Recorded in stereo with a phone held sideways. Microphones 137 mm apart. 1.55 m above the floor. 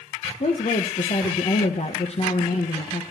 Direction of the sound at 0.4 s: 50° left (ahead or behind).